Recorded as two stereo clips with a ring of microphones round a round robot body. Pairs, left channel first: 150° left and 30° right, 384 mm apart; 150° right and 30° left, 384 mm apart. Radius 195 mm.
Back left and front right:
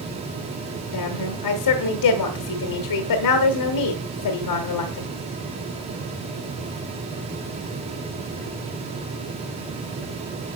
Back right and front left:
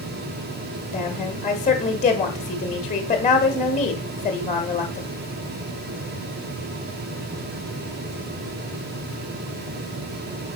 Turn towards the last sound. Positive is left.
turn(degrees=145)